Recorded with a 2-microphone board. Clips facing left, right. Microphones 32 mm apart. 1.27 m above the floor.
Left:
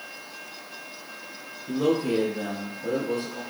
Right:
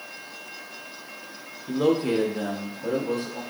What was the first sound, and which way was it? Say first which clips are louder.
A man speaking: right 1 dB; 40° right (ahead or behind).